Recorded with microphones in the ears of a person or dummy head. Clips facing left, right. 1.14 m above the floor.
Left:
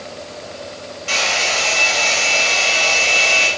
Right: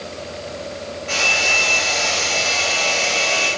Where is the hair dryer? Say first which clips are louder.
Left 2 dB; 55° left (ahead or behind), 1.9 m.